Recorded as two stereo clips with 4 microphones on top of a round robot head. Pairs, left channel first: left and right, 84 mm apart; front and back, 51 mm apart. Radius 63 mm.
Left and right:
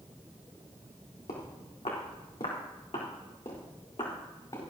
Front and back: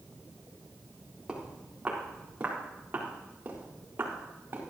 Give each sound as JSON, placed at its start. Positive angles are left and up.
{"t": 1.3, "sound": "footsteps", "azimuth_deg": 110, "distance_m": 4.0}